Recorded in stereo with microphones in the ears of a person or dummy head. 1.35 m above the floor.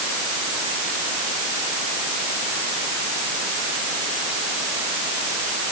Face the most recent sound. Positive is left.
No sound to turn to.